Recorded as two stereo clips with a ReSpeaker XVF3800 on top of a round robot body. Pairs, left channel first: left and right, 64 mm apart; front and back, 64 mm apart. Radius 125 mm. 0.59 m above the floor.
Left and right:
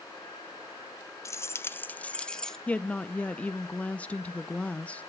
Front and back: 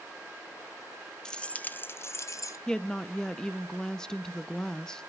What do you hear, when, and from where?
1.2 s keys jangling: 75° left, 0.8 m; by 2.6 s 10° left, 0.9 m
2.7 s a woman speaking: 60° left, 0.6 m